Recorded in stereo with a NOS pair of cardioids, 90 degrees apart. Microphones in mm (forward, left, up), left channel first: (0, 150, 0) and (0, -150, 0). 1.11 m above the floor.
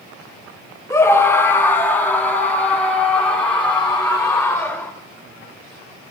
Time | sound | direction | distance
0.9 | a scream | 10° left | 1.2 m